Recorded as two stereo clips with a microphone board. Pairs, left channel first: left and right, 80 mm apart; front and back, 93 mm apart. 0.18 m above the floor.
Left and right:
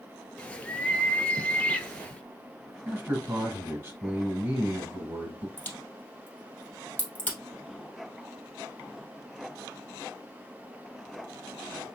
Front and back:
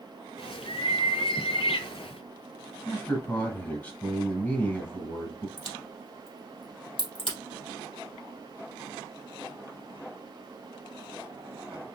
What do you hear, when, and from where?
0.4 s a bird: 15° left, 0.5 m
2.9 s a man speaking: 55° right, 1.6 m
5.6 s a crack: 20° left, 2.5 m